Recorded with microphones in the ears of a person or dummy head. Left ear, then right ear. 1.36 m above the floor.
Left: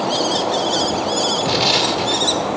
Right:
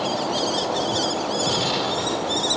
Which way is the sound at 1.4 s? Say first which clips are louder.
Left 6 dB; 20° left (ahead or behind).